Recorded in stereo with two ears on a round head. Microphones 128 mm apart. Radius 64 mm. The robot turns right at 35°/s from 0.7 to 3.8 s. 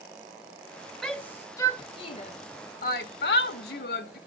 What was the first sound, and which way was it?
A shout, 5° left (ahead or behind).